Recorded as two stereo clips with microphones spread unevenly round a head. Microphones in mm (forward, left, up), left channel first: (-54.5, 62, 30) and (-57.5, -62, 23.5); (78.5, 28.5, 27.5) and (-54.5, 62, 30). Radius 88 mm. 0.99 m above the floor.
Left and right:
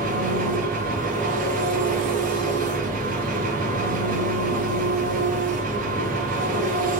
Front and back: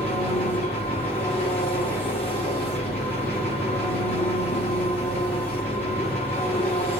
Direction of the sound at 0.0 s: 95° right.